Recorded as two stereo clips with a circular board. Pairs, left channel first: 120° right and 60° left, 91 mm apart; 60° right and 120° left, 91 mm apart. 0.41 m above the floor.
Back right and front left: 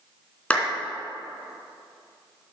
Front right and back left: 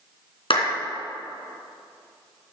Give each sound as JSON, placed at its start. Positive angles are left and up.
{"t": 0.5, "sound": "a clap", "azimuth_deg": -45, "distance_m": 3.0}